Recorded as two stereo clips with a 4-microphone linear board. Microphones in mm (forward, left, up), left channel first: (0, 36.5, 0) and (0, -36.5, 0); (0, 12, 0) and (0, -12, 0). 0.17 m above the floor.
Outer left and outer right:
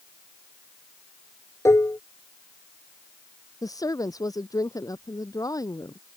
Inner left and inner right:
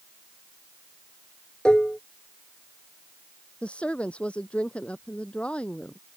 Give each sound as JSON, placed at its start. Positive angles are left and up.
{"t": 1.6, "sound": "dishes clattering", "side_deg": 40}
{"t": 3.6, "sound": "a woman speaking", "side_deg": 55}